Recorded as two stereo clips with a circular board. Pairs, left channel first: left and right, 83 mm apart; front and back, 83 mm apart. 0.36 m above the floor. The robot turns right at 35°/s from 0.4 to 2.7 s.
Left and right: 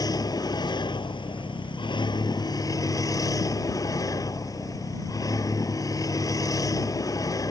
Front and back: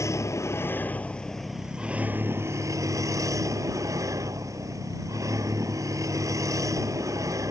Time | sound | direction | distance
0.0 | a vehicle | 55° left | ?